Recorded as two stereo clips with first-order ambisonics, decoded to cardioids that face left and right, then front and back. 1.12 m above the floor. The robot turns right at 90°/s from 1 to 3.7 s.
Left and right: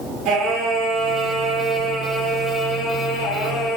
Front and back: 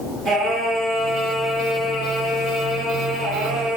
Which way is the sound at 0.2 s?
125° right.